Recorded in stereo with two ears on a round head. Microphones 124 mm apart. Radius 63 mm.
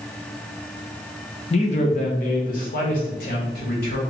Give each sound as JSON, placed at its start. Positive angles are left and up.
{"t": 1.5, "sound": "a man speaking", "side_deg": 45, "distance_m": 0.7}